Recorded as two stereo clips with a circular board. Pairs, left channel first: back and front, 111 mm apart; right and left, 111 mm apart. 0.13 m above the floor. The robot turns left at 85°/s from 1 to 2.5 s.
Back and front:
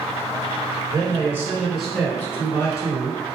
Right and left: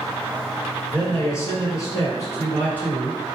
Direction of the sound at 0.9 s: 25° right.